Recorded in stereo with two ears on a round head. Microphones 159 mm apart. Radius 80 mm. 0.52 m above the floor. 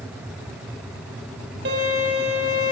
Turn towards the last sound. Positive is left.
turn(degrees=-65)  # may be behind; listen again after turning